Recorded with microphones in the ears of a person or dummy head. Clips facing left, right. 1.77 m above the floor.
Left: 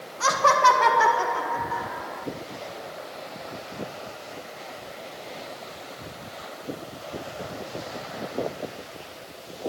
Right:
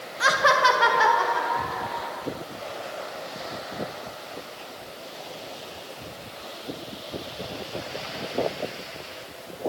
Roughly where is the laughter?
Centre.